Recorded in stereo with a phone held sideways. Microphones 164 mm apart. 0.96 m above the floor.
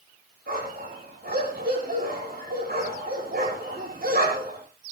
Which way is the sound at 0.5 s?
80° right.